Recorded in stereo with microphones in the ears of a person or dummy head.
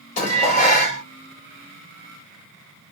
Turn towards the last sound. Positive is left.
turn(degrees=40)  # may be behind; listen again after turning